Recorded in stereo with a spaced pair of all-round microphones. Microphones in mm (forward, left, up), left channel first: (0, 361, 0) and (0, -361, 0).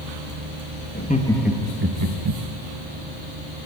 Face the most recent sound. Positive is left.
turn(degrees=-45)  # may be behind; listen again after turning